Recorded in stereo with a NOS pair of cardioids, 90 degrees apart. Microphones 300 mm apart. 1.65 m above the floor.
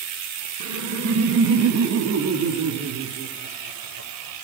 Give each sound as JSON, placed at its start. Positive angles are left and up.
{"t": 0.6, "sound": "laughter", "azimuth_deg": -55, "distance_m": 1.3}